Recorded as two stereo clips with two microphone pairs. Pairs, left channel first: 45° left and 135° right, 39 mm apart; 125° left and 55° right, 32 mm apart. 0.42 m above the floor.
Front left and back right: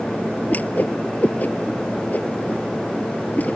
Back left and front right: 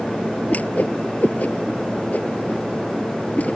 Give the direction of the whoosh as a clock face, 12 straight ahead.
9 o'clock.